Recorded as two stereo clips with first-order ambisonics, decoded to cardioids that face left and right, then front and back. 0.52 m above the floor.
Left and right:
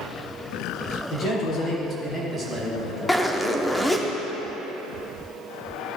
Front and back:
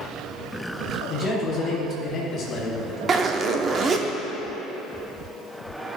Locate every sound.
1.1 s a man speaking: 55° left, 2 m; by 3.0 s 10° right, 1.5 m
3.1 s a zipper: 170° left, 0.6 m